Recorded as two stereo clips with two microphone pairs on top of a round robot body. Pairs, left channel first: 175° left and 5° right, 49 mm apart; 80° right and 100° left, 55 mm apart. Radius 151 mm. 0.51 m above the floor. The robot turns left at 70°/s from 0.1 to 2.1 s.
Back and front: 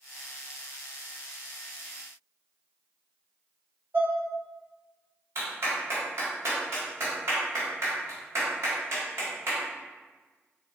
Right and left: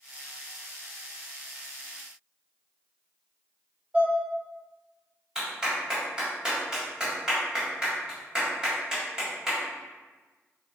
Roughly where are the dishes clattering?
Ahead left.